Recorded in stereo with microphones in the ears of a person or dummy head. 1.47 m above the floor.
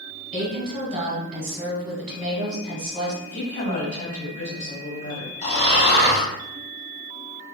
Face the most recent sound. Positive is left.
turn(degrees=40)  # may be behind; listen again after turning